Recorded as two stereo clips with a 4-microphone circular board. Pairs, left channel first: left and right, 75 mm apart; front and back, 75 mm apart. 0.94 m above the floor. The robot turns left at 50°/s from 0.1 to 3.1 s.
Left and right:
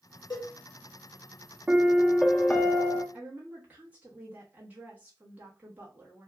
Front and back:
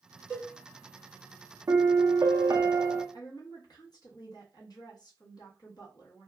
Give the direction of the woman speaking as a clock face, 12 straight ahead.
1 o'clock.